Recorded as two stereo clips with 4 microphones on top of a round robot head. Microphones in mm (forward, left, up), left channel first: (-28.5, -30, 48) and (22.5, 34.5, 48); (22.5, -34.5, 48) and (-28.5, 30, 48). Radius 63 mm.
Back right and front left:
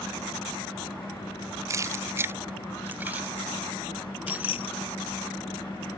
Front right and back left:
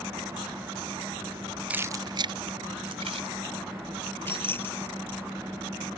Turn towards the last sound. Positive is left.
turn(degrees=-115)